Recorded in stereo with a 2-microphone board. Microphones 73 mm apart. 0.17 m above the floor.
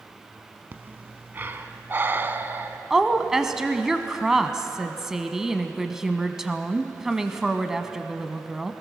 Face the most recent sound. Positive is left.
turn(degrees=-5)  # may be behind; listen again after turning